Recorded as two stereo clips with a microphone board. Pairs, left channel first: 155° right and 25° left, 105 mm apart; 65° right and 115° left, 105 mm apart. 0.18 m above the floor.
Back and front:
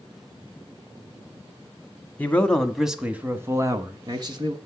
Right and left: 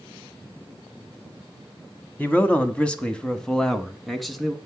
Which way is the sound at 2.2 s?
115° right.